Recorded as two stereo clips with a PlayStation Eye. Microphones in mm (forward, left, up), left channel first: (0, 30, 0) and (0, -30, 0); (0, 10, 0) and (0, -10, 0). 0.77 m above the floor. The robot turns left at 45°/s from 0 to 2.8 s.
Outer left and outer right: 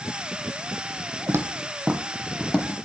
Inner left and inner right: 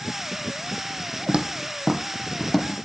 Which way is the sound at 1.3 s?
50° right (ahead or behind).